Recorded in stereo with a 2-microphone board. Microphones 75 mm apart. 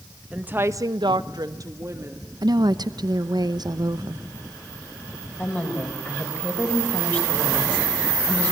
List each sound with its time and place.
0.3 s a woman speaking: 15° right (ahead or behind), 1.2 m; by 2.3 s 35° right (ahead or behind), 2 m
2.4 s a woman speaking: 65° right (ahead or behind), 0.8 m
5.4 s a woman speaking: 25° left (ahead or behind), 5 m